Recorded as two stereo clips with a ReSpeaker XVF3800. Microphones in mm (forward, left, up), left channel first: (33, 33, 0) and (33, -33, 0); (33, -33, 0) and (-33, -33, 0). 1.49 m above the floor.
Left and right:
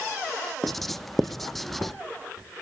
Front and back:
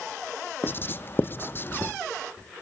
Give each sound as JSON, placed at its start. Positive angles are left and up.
{"t": 0.6, "sound": "writing", "azimuth_deg": 5, "distance_m": 0.7}